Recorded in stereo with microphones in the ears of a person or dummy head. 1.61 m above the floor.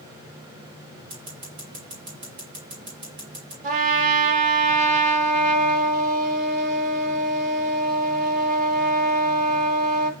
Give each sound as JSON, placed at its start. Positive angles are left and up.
{"t": 1.1, "sound": "scissors", "side_deg": -30, "distance_m": 1.8}
{"t": 3.6, "sound": "a trumpet", "side_deg": -45, "distance_m": 0.9}